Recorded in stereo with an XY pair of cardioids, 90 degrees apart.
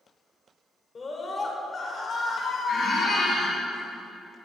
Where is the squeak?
60° left, 2.5 m.